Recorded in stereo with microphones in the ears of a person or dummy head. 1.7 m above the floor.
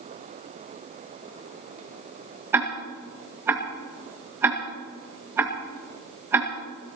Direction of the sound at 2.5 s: 5° right (ahead or behind).